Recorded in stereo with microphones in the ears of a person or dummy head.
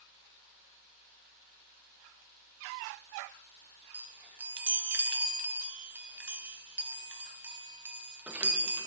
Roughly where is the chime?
Centre.